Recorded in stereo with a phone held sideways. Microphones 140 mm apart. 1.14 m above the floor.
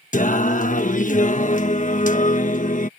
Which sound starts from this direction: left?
Singing, at 0.1 s.